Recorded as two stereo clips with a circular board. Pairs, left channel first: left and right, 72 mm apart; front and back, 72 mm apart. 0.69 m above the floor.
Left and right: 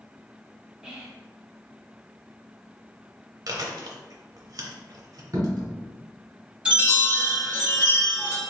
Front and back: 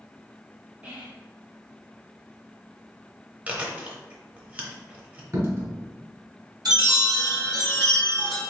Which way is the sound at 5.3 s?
125° right.